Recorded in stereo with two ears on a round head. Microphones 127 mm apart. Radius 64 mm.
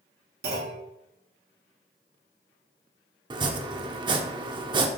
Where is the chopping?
35° right (ahead or behind), 0.9 m.